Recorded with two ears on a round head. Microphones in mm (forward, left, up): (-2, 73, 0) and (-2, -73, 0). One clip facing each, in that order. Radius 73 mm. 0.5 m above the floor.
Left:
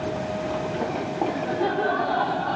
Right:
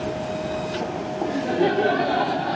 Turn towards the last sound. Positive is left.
turn(degrees=-20)  # may be behind; listen again after turning